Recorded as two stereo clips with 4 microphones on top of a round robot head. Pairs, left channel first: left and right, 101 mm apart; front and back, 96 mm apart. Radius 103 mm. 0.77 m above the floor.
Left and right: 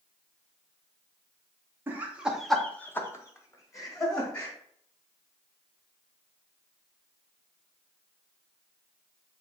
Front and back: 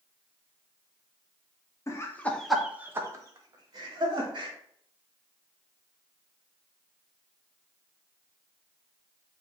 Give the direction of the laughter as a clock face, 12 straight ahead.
1 o'clock.